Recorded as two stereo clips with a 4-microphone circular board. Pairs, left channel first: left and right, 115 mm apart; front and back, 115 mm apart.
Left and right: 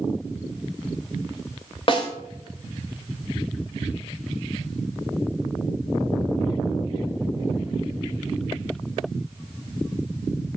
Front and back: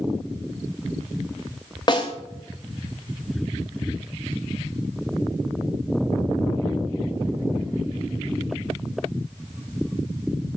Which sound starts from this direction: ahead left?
A snare drum, at 1.9 s.